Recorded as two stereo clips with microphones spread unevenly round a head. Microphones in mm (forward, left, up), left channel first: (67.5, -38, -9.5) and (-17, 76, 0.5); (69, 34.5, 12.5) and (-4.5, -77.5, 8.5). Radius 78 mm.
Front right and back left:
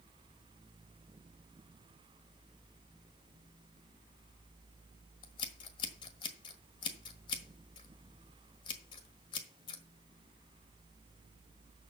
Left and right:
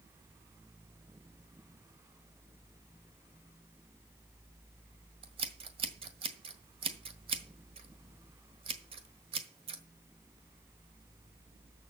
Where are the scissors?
100° right, 1.4 m.